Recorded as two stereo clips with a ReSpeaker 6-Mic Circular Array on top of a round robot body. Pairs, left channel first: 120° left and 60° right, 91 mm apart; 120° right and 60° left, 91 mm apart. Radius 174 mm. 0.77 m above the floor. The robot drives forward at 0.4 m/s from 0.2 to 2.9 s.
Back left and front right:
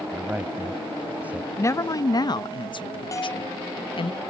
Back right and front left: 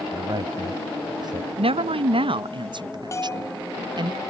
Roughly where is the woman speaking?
Ahead left.